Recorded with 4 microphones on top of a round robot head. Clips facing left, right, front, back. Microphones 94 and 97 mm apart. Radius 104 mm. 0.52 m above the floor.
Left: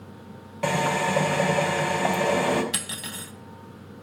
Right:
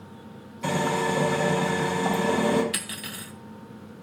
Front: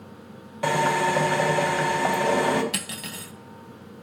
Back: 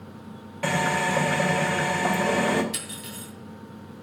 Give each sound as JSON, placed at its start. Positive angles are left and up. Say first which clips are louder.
{"t": 0.6, "sound": "a drill", "louder": "left 1 dB, front 3 dB", "azimuth_deg": 70, "distance_m": 4.5}
{"t": 2.7, "sound": "cutlery clinking", "louder": "left 1 dB, front 3 dB", "azimuth_deg": 25, "distance_m": 2.5}